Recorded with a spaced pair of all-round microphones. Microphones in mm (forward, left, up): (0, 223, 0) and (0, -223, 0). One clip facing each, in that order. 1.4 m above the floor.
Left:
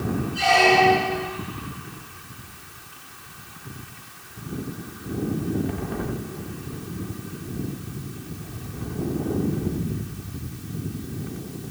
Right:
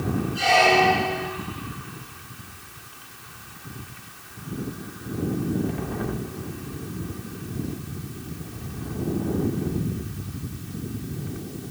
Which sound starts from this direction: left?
A squeak, at 0.3 s.